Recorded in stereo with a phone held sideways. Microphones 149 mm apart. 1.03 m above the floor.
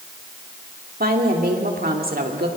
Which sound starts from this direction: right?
A woman speaking, at 1.0 s.